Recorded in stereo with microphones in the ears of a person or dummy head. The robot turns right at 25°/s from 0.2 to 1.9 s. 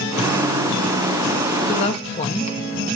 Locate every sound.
1.7 s a woman speaking: 30° left (ahead or behind), 1.8 m; by 2.6 s 35° left (ahead or behind), 1.8 m